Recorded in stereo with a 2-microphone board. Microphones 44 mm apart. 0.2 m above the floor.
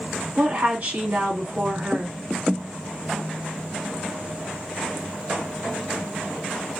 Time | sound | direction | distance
0.4 | a woman speaking | 50° right (ahead or behind) | 2.0 m